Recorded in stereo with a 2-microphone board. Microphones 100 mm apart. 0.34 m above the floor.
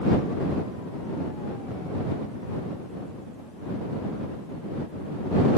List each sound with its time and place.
Only background noise.